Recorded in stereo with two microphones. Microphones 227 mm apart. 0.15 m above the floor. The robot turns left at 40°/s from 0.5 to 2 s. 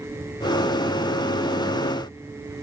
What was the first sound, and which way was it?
Only background noise.